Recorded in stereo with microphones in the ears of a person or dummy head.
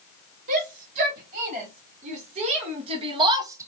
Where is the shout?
40° right (ahead or behind), 4 m; by 3.7 s 10° right (ahead or behind), 0.8 m.